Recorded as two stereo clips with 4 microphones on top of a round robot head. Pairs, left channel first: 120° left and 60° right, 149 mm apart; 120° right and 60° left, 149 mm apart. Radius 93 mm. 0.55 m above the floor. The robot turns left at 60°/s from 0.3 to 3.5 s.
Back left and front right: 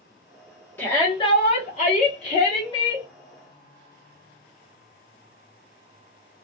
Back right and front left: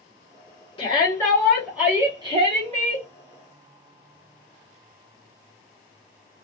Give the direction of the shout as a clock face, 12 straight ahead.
6 o'clock.